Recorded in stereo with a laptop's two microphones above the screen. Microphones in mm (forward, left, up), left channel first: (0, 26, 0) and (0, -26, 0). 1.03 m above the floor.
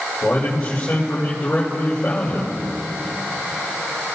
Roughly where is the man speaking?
Left.